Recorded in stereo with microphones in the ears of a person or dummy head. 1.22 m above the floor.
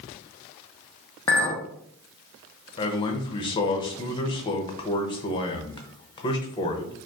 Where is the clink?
15° left (ahead or behind), 0.6 m.